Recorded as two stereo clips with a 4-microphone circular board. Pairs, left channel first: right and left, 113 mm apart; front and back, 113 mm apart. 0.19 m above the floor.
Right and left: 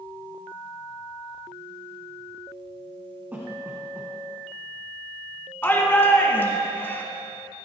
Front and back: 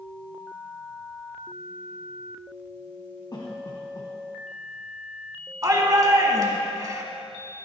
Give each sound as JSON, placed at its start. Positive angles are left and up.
{"t": 3.3, "sound": "a cough", "azimuth_deg": 25, "distance_m": 1.6}
{"t": 5.6, "sound": "a shout", "azimuth_deg": -145, "distance_m": 1.9}